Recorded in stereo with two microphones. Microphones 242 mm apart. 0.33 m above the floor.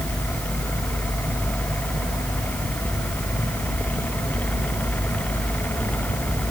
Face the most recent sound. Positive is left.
No sound to turn to.